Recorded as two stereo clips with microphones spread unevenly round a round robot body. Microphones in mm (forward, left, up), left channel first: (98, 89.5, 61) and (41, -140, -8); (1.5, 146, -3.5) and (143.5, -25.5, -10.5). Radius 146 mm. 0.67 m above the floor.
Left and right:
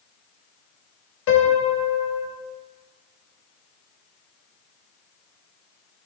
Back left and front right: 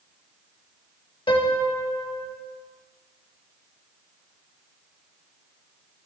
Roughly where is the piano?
Ahead left.